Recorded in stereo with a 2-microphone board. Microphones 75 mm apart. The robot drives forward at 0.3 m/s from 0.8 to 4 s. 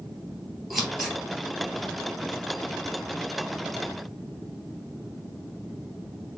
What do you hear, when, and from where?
0.7 s scissors: 5° right (ahead or behind), 1.8 m